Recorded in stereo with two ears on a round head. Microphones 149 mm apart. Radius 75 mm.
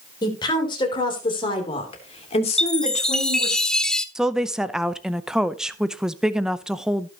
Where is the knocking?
No knocking in this recording.